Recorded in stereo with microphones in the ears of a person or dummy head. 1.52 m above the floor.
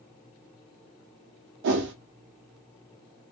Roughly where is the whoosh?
Right.